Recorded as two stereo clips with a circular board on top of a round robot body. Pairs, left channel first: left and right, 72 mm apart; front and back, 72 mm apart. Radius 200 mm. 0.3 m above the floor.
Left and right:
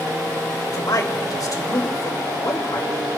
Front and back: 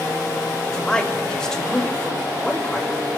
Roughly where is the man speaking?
Left.